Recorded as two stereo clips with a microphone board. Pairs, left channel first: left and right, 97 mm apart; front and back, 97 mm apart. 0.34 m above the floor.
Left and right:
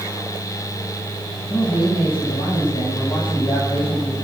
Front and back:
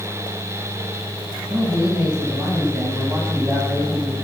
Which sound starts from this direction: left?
A man speaking, at 1.5 s.